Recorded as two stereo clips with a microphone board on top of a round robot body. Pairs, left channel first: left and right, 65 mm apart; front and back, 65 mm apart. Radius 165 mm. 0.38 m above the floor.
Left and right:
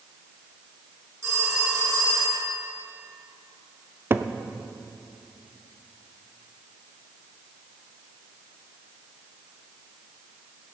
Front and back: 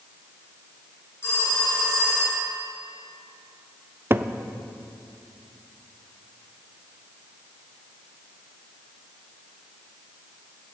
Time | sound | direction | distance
1.2 | a phone ringing | 50° right | 4.5 m
4.1 | a cupboard door | 135° right | 0.7 m